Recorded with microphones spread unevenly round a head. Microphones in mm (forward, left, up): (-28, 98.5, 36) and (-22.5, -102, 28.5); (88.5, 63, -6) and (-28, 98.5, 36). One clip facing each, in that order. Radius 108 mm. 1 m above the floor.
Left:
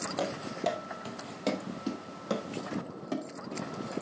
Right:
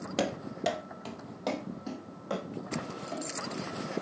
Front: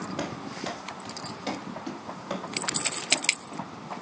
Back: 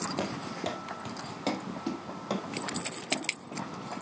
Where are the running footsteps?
145° right, 2.0 m; by 3.9 s 115° left, 5.5 m.